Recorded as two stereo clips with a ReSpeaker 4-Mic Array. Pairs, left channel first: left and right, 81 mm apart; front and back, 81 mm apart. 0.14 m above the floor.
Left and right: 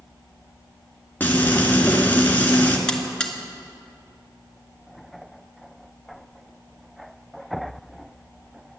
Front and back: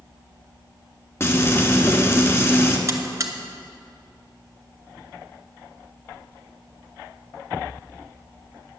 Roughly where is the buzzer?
Behind.